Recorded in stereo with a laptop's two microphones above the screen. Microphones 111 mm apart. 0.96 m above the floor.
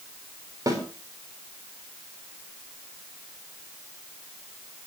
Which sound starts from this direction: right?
A snare drum, at 0.7 s.